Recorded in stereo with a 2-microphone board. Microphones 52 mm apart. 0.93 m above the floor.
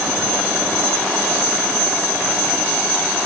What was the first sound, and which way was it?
Only background noise.